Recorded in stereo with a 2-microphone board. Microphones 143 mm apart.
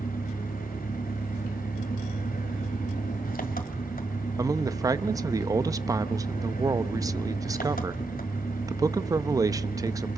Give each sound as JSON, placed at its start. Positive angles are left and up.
{"t": 0.0, "sound": "an engine running", "side_deg": 90, "distance_m": 2.0}
{"t": 4.4, "sound": "a man speaking", "side_deg": -25, "distance_m": 0.6}